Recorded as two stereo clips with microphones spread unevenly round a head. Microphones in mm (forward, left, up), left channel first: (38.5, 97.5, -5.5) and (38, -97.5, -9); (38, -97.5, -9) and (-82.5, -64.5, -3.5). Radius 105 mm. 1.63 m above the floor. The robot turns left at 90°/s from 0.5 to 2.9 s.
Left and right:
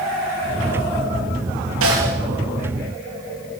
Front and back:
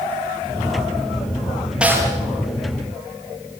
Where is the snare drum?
115° right, 6.5 m; by 2.1 s 145° right, 6.5 m.